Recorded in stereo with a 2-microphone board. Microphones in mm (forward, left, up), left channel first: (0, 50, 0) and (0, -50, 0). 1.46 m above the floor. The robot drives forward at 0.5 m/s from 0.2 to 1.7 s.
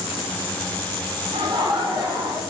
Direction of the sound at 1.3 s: 50° right (ahead or behind).